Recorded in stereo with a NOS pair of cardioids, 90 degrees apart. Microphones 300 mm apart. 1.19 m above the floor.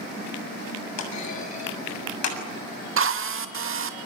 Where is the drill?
45° right, 2.5 m.